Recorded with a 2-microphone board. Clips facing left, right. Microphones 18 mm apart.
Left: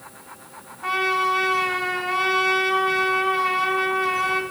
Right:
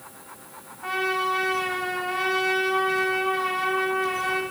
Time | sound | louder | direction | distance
0.8 | a trumpet | left 4 dB | 15° left (ahead or behind) | 3 m